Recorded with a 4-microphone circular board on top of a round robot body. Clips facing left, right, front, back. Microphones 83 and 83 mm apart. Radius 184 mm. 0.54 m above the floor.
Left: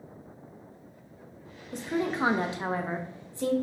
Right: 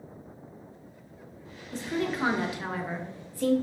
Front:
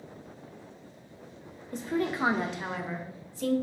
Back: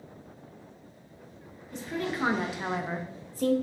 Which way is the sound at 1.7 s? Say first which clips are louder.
Left 1 dB, front 3 dB; 25° left.